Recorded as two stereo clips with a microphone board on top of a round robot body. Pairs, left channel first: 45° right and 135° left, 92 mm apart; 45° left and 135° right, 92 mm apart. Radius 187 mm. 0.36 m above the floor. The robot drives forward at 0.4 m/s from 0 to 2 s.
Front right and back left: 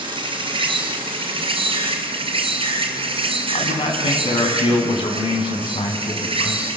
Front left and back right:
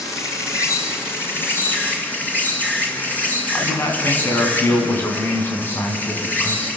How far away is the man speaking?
About 4 m.